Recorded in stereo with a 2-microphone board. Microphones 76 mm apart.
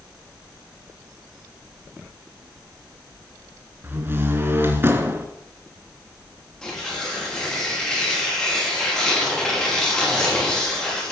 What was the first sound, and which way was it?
A door slam, 30° right (ahead or behind).